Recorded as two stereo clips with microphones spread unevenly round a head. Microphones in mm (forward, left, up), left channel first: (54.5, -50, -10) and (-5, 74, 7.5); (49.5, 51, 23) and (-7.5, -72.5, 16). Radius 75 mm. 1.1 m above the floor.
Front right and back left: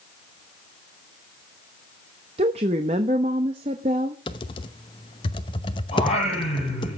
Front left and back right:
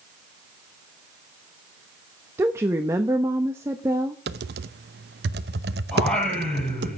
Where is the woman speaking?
170° left, 1.0 m.